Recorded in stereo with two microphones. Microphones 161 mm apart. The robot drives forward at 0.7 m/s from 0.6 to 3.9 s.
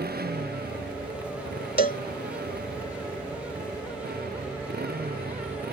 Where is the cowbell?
65° left (ahead or behind); by 2.0 s 55° left (ahead or behind).